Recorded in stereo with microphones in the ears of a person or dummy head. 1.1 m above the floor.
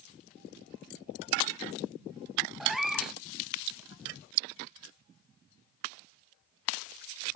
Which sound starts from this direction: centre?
A cat meowing, at 2.6 s.